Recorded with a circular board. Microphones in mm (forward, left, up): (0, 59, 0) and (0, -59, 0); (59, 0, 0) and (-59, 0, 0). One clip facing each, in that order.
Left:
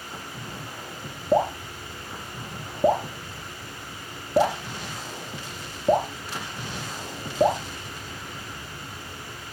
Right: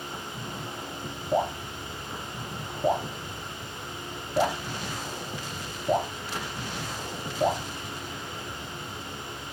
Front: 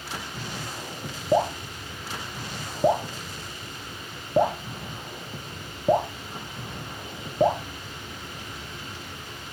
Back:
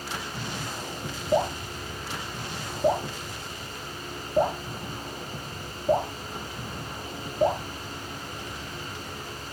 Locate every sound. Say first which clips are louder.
1.3 s dripping: left 5 dB, front 2 dB; 35° left, 3.5 m